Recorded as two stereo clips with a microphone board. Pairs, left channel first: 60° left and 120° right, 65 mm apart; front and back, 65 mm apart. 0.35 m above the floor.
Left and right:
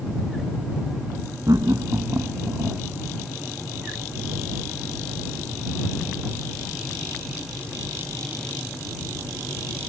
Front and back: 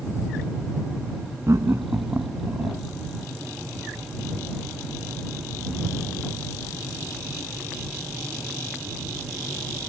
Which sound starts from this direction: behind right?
Laughter, at 1.5 s.